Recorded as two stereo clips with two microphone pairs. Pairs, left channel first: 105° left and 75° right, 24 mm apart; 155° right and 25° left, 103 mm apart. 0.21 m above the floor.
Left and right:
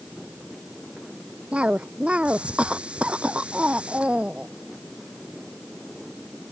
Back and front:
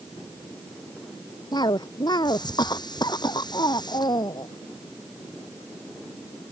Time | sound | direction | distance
1.5 | a cough | 115° right | ?